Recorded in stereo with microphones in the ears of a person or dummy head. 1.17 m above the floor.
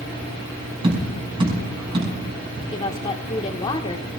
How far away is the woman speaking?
About 1.3 m.